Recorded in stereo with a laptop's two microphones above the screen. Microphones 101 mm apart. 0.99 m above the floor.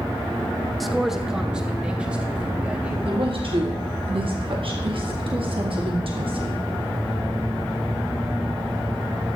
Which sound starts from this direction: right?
A woman speaking, at 3.0 s.